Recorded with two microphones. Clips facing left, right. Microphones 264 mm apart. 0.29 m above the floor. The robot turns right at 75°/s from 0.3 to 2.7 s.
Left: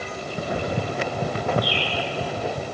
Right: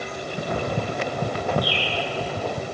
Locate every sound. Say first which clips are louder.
1.6 s a bird: even; 70° right (ahead or behind), 7 m; by 2.0 s 80° right, 7 m